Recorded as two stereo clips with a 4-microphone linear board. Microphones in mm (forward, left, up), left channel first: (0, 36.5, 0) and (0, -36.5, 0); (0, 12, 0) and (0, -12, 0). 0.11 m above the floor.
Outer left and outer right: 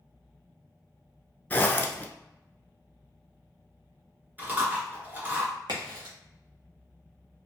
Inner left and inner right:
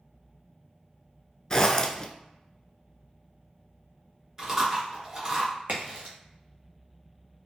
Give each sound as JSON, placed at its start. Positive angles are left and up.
{"t": 1.5, "sound": "a zipper", "side_deg": 25, "distance_m": 0.6}
{"t": 4.4, "sound": "chewing", "side_deg": -25, "distance_m": 1.7}
{"t": 5.7, "sound": "a crack", "side_deg": -75, "distance_m": 1.6}